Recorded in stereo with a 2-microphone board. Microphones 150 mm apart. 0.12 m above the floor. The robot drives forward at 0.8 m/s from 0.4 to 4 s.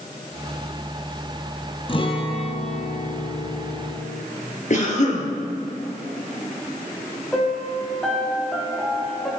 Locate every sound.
1.9 s a guitar: 35° left (ahead or behind), 1.6 m; by 4.2 s 50° left (ahead or behind), 1.2 m
4.7 s a cough: 55° left (ahead or behind), 2.5 m
7.3 s a piano: 5° left (ahead or behind), 2.5 m